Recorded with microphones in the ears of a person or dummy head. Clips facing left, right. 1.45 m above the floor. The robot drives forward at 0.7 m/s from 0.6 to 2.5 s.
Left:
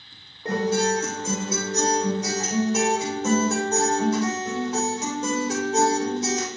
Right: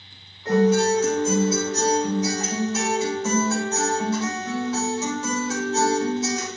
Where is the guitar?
30° left (ahead or behind), 4.5 m; by 6.5 s 20° left (ahead or behind), 5.5 m.